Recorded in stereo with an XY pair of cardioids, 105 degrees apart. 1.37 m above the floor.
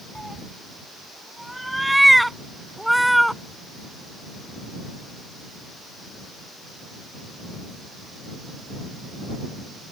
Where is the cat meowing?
5° right; by 3.4 s straight ahead.